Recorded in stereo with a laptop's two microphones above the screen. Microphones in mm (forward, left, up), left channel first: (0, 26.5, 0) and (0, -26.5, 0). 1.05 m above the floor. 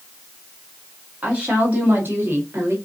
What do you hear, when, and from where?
1.2 s a woman speaking: 25° right (ahead or behind), 1.7 m; by 2.8 s 55° right (ahead or behind), 1.6 m